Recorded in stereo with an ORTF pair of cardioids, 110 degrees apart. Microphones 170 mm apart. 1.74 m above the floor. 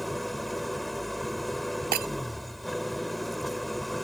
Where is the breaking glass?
60° right.